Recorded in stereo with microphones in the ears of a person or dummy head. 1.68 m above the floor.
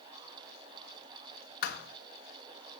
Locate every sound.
1.6 s a thud: 55° left (ahead or behind), 2.5 m